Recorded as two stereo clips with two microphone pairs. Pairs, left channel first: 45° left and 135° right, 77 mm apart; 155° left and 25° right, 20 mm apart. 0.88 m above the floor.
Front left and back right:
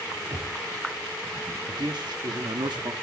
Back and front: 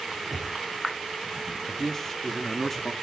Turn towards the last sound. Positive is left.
turn(degrees=-125)